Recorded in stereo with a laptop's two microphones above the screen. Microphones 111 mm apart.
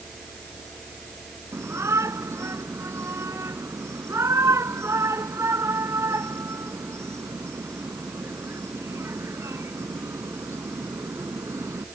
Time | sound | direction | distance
0.0 | a fan | centre (ahead or behind) | ?
1.5 | a shout | 25° right (ahead or behind) | ?